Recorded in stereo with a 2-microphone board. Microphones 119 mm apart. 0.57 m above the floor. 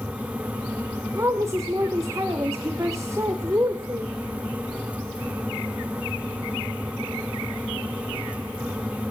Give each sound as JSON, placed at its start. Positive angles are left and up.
{"t": 1.1, "sound": "a woman speaking", "side_deg": -30, "distance_m": 1.5}